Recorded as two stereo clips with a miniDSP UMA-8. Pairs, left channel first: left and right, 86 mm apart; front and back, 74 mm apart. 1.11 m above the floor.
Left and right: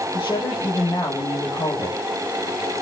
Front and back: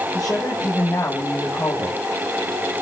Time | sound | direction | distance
0.1 | a woman speaking | 50° left | 6.5 m